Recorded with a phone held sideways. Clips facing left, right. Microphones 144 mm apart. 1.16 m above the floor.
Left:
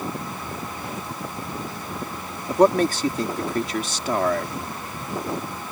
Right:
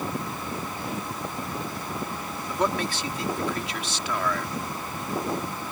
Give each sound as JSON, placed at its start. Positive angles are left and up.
{"t": 2.5, "sound": "a man speaking", "side_deg": 45}